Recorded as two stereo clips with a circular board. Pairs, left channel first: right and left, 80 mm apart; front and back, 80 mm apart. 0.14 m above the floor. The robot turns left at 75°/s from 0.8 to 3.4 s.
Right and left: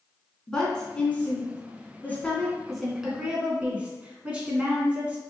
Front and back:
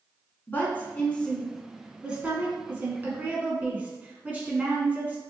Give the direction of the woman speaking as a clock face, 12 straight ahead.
1 o'clock.